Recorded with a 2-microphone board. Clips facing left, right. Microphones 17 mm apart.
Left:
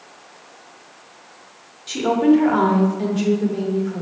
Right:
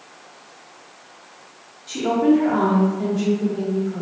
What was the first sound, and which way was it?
A woman speaking, 30° left (ahead or behind).